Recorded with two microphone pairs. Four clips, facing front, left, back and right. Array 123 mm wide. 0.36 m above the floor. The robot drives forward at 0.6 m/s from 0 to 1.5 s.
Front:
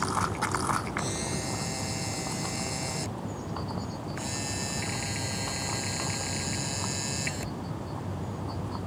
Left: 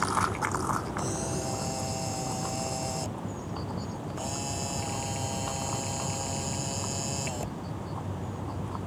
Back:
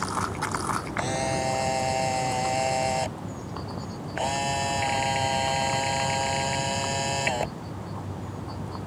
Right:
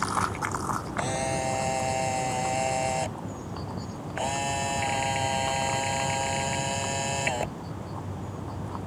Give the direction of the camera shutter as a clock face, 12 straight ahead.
4 o'clock.